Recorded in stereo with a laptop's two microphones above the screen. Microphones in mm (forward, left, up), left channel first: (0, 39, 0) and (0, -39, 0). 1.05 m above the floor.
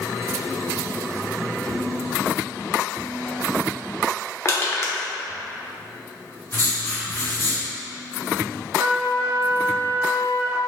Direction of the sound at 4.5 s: 35° left (ahead or behind).